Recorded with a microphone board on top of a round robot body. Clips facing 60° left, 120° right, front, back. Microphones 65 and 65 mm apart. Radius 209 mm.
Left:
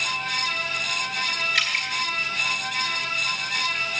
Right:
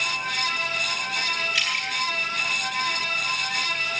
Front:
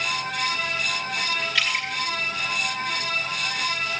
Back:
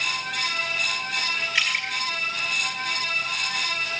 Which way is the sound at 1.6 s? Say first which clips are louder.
Left 1 dB, back 1 dB; 110° left.